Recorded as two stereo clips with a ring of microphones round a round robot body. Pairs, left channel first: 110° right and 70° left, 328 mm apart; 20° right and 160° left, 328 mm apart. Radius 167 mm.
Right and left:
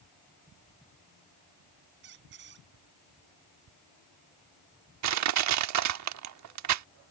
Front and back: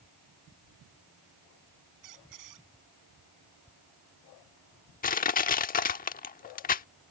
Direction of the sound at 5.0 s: 40° left.